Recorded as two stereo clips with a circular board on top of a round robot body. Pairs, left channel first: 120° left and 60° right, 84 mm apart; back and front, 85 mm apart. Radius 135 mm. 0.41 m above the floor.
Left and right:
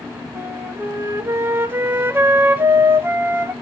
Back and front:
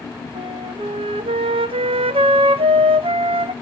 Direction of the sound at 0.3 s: 5° left.